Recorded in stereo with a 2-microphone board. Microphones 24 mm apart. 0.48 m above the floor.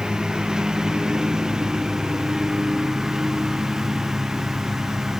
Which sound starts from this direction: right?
A lawn mower, at 0.0 s.